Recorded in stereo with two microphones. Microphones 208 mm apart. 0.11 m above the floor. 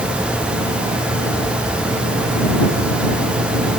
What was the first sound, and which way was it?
Only background noise.